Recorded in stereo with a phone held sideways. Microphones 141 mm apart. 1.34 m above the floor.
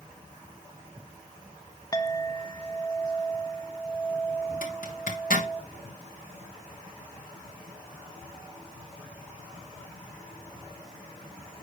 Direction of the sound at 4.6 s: 70° left (ahead or behind).